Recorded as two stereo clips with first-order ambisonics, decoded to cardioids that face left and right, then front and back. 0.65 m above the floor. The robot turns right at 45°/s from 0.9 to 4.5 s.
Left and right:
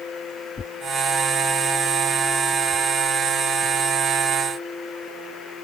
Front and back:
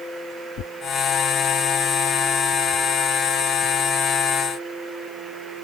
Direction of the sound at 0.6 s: 25° left.